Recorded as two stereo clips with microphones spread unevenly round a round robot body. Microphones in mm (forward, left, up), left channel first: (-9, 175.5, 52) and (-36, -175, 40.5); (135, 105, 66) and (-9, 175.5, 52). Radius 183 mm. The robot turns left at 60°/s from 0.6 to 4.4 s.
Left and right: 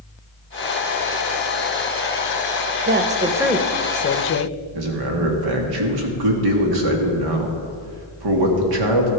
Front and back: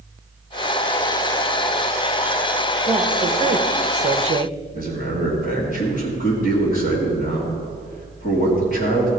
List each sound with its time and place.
2.9 s a woman speaking: 145° right, 0.7 m; by 4.5 s 125° left, 0.7 m
4.8 s a man speaking: 80° right, 1.7 m